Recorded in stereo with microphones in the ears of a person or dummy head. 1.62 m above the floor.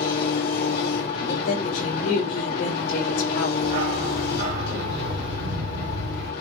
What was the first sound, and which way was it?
An engine running, 55° left (ahead or behind).